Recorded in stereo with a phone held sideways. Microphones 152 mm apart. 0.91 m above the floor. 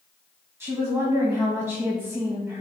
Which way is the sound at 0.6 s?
15° right (ahead or behind).